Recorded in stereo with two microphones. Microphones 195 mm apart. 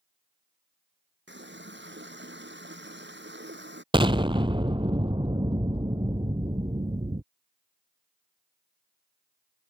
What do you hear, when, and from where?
1.3 s a running tap: 65° right (ahead or behind)
3.9 s an explosion: 25° right (ahead or behind)